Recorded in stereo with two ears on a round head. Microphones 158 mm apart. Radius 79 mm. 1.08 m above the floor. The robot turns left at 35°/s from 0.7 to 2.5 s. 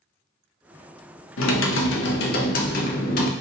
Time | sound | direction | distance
1.4 | typing on a keyboard | 90° left | 0.6 m